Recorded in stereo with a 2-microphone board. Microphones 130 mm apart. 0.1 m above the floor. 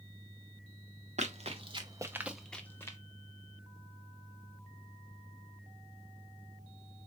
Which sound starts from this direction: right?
Running footsteps, at 1.2 s.